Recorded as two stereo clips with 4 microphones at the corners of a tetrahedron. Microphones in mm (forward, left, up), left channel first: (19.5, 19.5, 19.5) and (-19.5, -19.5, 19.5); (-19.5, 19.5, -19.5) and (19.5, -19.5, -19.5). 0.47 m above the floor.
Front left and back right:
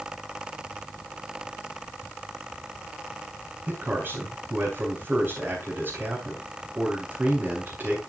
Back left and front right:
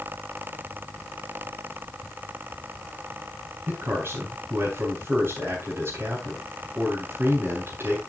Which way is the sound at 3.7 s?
85° right.